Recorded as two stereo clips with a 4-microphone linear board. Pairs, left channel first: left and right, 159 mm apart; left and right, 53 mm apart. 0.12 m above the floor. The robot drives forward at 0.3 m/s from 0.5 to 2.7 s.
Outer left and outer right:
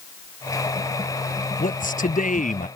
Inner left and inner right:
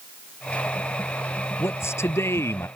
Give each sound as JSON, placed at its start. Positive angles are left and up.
{"t": 1.6, "sound": "a man speaking", "side_deg": 60}